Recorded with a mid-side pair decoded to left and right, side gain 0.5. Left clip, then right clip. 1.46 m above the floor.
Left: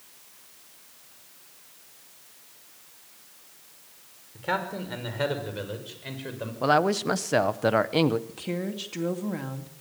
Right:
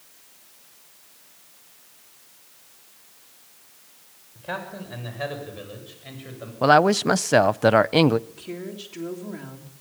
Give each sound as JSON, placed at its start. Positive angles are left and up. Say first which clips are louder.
{"t": 4.3, "sound": "a man speaking", "louder": "left 4 dB", "azimuth_deg": 65, "distance_m": 6.0}
{"t": 6.6, "sound": "a woman speaking", "louder": "right 6 dB", "azimuth_deg": -40, "distance_m": 0.6}
{"t": 8.3, "sound": "a woman speaking", "louder": "left 3 dB", "azimuth_deg": 50, "distance_m": 2.5}